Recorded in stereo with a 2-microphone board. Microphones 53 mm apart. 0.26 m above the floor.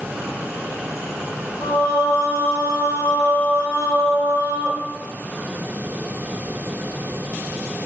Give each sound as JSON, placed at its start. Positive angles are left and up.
{"t": 1.6, "sound": "singing", "side_deg": 45, "distance_m": 1.3}